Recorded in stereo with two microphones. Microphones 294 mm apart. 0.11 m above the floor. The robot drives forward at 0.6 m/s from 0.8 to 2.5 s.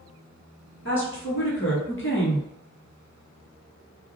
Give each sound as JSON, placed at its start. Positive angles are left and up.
{"t": 0.8, "sound": "a woman speaking", "side_deg": 40, "distance_m": 1.5}